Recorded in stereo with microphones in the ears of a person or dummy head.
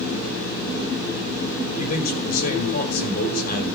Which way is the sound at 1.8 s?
40° left (ahead or behind).